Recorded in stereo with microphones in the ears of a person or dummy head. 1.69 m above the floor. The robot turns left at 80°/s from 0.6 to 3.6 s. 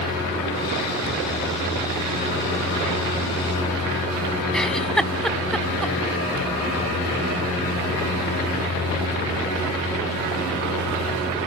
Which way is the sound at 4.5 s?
5° left (ahead or behind).